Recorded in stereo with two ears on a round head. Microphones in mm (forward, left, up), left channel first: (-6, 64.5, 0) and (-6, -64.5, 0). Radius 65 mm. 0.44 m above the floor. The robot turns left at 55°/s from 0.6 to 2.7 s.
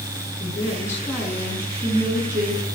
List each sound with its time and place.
0.4 s a woman speaking: 35° left, 5 m; by 2.6 s 80° right, 5 m